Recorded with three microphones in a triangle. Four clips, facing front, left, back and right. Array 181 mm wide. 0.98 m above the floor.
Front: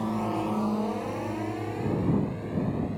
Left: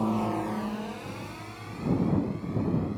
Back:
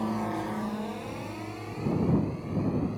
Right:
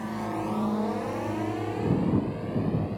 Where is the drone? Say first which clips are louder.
Left 3 dB, front 2 dB; 85° left; by 3.0 s 65° right.